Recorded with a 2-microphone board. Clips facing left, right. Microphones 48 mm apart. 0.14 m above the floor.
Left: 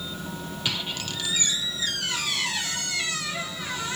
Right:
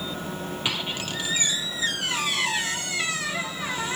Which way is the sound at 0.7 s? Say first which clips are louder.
Right 1 dB; 20° right (ahead or behind).